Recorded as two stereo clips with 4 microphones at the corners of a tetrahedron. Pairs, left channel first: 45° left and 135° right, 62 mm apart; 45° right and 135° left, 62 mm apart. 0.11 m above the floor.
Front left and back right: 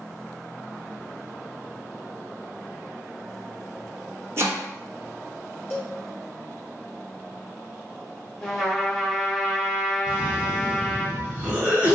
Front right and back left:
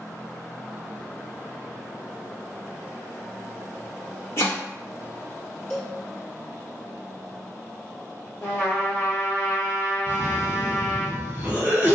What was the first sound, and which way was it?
Chopping, 90° right.